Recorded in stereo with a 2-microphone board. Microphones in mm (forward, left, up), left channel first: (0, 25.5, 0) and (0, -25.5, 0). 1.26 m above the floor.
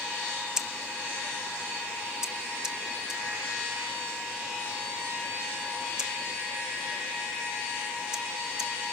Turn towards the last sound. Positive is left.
turn(degrees=-15)  # may be behind; listen again after turning